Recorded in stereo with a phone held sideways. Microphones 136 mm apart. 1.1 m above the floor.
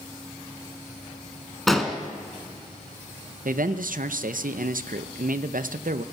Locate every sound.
1.7 s an explosion: centre (ahead or behind), 1.9 m
3.5 s a man speaking: 85° right, 0.5 m